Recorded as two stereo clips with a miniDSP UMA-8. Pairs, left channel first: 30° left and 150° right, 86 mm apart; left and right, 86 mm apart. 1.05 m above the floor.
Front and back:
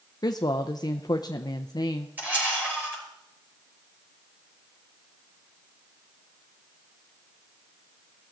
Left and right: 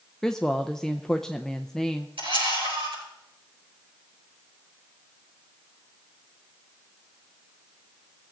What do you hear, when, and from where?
0.2 s a woman speaking: 10° left, 0.5 m
2.2 s a camera shutter: 80° right, 5.5 m